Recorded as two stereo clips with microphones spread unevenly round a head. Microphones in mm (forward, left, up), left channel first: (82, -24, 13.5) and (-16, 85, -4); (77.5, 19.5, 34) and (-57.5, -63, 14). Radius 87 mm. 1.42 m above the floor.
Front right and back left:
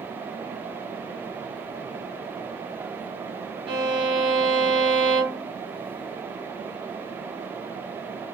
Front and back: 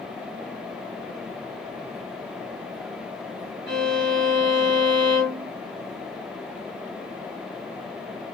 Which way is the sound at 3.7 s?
160° right.